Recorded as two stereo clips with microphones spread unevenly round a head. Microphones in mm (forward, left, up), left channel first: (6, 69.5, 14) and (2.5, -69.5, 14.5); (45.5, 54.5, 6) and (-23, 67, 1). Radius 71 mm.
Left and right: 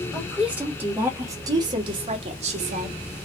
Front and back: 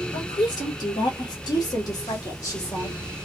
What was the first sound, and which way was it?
A woman speaking, 5° right.